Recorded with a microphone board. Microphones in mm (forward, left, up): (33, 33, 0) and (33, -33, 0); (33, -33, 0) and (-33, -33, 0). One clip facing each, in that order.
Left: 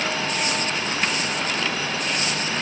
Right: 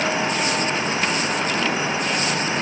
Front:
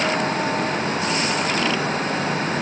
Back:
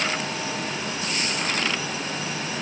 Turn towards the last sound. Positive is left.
No sound to turn to.